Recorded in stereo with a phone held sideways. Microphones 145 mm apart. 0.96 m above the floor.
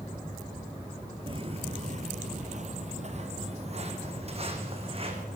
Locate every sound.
1.3 s footsteps: 35° right (ahead or behind), 1.3 m; by 5.2 s 40° right (ahead or behind), 4.5 m